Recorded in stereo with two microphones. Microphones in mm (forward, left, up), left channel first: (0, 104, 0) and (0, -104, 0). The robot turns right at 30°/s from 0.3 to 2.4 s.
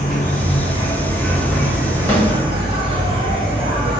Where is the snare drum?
10° left (ahead or behind), 1.1 m; by 2.3 s 5° left (ahead or behind), 1.1 m.